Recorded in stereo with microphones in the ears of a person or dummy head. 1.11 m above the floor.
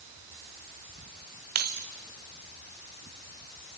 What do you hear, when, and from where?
1.6 s keys jangling: 50° right (ahead or behind), 0.7 m